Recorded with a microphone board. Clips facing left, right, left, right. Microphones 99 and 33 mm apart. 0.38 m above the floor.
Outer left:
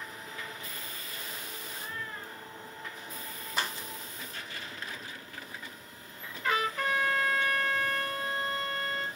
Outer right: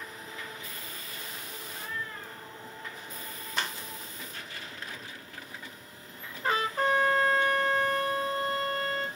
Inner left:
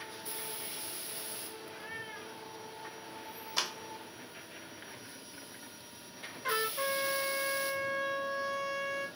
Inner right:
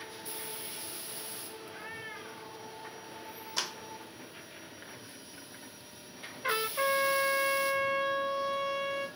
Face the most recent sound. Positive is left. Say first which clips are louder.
# outer right 3 dB, inner right 3 dB
turn(degrees=-35)  # may be behind; listen again after turning